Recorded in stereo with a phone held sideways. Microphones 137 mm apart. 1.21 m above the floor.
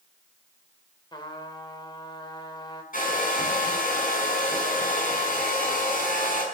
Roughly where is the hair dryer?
Left.